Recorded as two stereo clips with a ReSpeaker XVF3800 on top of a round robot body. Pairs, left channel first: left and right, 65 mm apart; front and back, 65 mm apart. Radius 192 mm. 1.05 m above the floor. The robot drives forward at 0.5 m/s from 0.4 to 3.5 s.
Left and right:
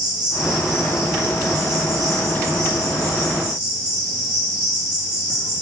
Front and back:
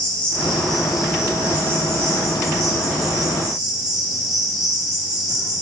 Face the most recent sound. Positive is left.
turn(degrees=-150)